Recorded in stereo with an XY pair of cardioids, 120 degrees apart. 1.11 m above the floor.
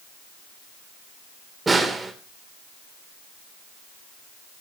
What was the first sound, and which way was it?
A snare drum, 20° right.